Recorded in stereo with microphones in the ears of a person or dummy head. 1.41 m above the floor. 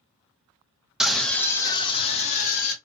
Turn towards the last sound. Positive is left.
turn(degrees=50)  # may be behind; listen again after turning